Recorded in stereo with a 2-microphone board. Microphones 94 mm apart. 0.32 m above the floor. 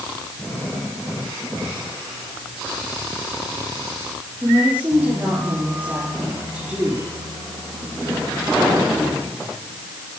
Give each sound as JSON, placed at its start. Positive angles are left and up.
{"t": 4.4, "sound": "a woman speaking", "side_deg": -15, "distance_m": 8.5}